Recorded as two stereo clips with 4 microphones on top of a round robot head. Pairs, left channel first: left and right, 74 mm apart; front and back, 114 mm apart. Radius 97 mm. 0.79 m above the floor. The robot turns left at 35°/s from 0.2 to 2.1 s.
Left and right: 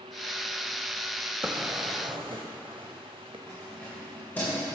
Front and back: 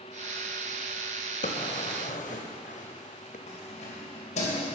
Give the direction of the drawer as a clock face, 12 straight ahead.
12 o'clock.